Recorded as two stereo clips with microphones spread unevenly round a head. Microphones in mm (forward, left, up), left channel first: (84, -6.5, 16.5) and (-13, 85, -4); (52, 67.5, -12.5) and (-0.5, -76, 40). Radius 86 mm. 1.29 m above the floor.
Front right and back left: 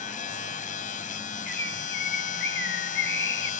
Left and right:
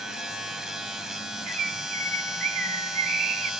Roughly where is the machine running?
Ahead right.